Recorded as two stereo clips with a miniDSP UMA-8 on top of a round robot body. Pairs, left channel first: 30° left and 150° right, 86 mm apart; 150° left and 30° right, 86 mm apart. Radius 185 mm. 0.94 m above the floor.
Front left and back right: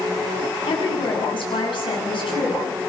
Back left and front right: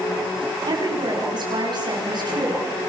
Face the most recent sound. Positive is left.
turn(degrees=5)